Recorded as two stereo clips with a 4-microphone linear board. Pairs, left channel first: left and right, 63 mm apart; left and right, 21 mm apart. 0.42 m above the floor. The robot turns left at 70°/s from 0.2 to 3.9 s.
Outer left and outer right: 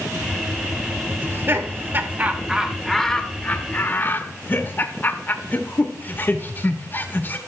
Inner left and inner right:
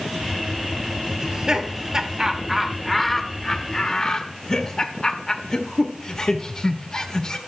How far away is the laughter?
About 1.2 m.